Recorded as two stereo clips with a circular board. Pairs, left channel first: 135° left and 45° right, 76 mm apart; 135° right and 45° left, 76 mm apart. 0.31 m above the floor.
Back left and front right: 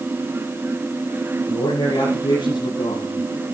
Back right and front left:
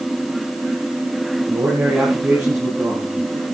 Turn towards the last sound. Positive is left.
turn(degrees=120)